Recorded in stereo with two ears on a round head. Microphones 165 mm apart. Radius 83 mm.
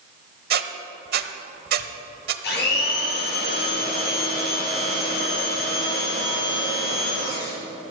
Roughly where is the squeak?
Right.